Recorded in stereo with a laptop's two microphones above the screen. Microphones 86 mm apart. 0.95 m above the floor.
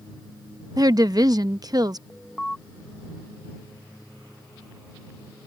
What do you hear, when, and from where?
0.8 s a woman speaking: 45° right (ahead or behind)
2.1 s an alarm: 5° left (ahead or behind)